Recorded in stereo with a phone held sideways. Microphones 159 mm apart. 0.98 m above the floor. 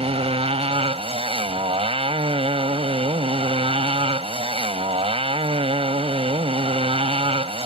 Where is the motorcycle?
35° right (ahead or behind).